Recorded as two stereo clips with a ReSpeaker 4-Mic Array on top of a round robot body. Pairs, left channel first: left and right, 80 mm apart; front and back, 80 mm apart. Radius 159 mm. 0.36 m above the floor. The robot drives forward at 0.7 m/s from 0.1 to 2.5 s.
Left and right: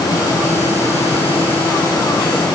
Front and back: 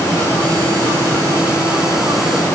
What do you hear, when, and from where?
Only background noise.